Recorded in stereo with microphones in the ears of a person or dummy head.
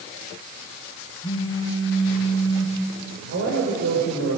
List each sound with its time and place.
1.2 s a phone buzzing: 20° left (ahead or behind), 3 m
3.3 s a man speaking: 60° right (ahead or behind), 6 m